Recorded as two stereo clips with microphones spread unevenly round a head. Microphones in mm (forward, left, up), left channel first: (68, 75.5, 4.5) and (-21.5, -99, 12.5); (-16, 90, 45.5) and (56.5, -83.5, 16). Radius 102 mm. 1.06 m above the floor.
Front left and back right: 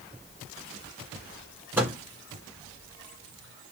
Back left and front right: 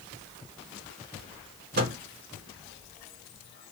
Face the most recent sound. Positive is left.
turn(degrees=-35)